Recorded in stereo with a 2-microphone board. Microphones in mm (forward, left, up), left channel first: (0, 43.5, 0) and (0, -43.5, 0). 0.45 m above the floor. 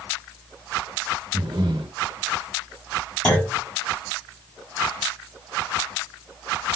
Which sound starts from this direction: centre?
A clunk, at 3.2 s.